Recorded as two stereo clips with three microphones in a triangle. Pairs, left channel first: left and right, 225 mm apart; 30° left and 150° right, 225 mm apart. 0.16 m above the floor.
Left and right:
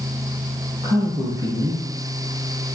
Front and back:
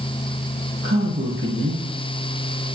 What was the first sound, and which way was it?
A man speaking, 165° right.